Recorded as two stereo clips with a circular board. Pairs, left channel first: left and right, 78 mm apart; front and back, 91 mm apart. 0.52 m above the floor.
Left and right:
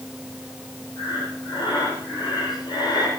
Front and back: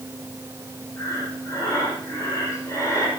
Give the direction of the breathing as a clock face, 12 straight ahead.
10 o'clock.